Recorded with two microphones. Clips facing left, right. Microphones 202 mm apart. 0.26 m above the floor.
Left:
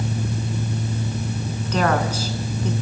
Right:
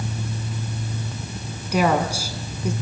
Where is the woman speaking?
10° right (ahead or behind), 2.5 m.